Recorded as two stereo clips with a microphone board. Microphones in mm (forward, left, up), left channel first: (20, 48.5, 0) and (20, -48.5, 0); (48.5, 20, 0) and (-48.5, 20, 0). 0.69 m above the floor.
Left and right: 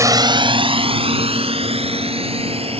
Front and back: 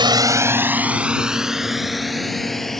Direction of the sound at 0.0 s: 145° right.